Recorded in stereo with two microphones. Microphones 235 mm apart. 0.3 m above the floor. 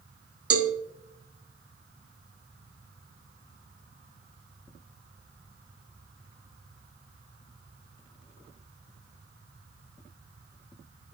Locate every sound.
0.5 s a cowbell: 75° right (ahead or behind), 0.6 m